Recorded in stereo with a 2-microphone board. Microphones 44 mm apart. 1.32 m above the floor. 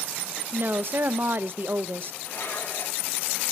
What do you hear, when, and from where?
0.5 s a woman speaking: 50° right (ahead or behind), 0.6 m
2.2 s dishes clattering: 55° left (ahead or behind), 3 m